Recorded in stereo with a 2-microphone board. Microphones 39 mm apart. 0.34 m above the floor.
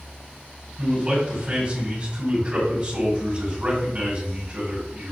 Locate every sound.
0.8 s a man speaking: 30° right (ahead or behind), 2 m